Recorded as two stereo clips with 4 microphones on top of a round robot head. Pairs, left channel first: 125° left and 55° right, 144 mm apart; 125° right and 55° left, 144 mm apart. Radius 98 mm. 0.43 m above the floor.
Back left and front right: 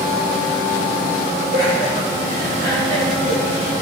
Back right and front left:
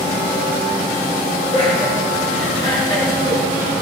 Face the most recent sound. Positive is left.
turn(degrees=175)